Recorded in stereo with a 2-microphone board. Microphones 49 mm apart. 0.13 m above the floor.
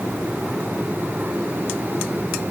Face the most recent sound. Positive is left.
No sound to turn to.